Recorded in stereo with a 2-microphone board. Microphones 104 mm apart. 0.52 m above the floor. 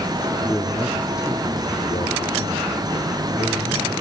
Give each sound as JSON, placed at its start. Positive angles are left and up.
{"t": 0.4, "sound": "a man speaking", "side_deg": 15, "distance_m": 0.8}